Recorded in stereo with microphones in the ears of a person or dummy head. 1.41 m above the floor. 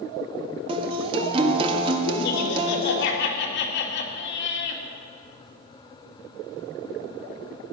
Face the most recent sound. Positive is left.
turn(degrees=65)  # may be behind; listen again after turning